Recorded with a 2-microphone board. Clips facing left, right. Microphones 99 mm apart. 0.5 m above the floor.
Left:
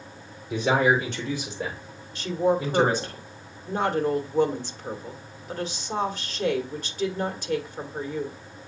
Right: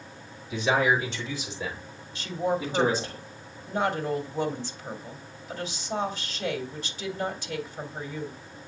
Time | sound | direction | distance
0.5 | a man speaking | 75° left (ahead or behind) | 6 m
2.1 | a woman speaking | 55° left (ahead or behind) | 1.5 m